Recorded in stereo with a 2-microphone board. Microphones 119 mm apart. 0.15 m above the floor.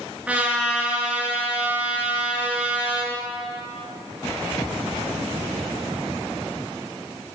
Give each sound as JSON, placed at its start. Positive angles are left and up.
{"t": 0.3, "sound": "a trumpet", "side_deg": -10, "distance_m": 2.5}